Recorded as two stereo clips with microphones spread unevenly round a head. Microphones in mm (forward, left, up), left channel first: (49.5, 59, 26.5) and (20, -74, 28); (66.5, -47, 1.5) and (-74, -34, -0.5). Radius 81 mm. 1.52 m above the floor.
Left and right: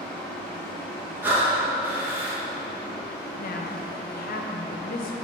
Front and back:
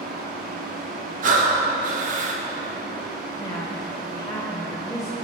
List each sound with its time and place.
0.0 s a fan: 160° left, 1.3 m
1.2 s breathing: straight behind, 1.0 m
3.4 s a woman speaking: 65° left, 1.1 m